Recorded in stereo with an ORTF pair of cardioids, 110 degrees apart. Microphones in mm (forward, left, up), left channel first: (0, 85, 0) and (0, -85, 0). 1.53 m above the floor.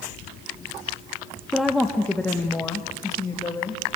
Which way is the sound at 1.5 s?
Straight ahead.